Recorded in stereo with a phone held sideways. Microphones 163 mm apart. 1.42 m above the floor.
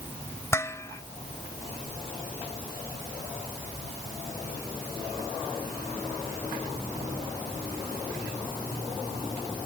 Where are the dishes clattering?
15° left (ahead or behind).